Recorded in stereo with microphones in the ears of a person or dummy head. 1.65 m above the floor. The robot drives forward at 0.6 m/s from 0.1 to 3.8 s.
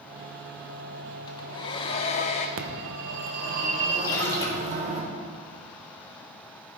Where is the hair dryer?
25° left (ahead or behind), 1.2 m; by 2.5 s 40° left (ahead or behind), 0.7 m.